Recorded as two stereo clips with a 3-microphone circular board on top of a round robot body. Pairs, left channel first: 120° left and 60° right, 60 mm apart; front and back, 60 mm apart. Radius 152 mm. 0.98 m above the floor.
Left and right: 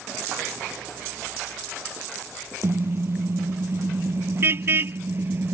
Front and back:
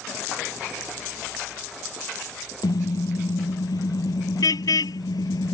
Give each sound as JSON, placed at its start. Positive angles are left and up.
{"t": 2.6, "sound": "a car horn", "azimuth_deg": -10}